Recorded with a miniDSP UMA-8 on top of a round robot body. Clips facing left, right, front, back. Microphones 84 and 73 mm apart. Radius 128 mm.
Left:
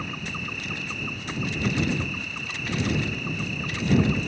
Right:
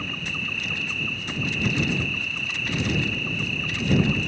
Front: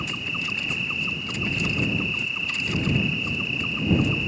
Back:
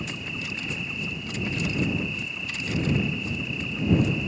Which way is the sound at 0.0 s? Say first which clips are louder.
Even, front 3 dB; 15° left.